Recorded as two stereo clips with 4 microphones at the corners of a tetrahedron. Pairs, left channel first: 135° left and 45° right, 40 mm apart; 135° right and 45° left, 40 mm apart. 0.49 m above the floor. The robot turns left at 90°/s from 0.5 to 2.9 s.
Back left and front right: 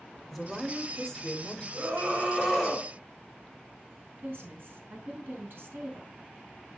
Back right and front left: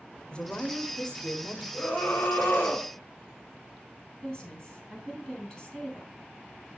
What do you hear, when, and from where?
0.3 s a woman speaking: 130° right, 1.0 m; by 1.6 s 130° left, 1.0 m
1.7 s a scream: 55° right, 2.5 m; by 2.9 s 160° right, 2.5 m
4.2 s a woman speaking: 70° right, 3 m